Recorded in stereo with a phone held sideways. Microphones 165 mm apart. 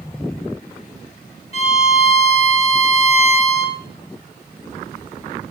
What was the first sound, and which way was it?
A violin, 40° left (ahead or behind).